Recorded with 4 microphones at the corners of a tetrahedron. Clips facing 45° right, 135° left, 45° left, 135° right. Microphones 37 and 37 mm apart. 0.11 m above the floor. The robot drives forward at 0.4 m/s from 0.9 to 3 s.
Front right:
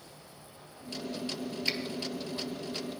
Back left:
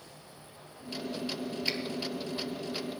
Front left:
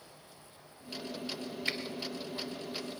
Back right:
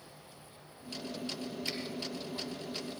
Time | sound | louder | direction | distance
1.7 | a finger snap | front right 1 dB, front left 6 dB | 40° left | 1.5 m